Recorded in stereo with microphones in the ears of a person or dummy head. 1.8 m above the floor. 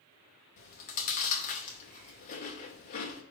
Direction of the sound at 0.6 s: 45° left (ahead or behind).